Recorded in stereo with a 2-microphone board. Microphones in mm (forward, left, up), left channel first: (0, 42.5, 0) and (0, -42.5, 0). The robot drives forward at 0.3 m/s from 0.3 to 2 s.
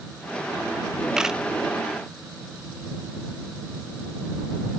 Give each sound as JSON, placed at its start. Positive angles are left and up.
{"t": 1.2, "sound": "a camera shutter", "side_deg": -10, "distance_m": 0.6}